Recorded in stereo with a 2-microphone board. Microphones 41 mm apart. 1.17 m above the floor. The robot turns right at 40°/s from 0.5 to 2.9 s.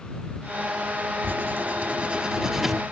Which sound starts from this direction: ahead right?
Writing, at 1.2 s.